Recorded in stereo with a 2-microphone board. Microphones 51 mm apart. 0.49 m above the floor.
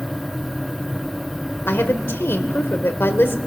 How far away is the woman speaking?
About 1.7 m.